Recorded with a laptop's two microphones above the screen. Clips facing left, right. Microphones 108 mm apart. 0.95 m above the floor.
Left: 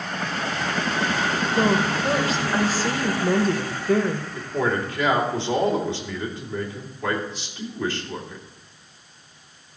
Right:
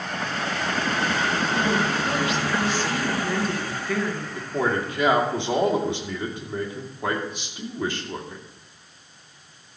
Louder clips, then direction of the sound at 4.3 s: Right 1 dB; 20° right (ahead or behind).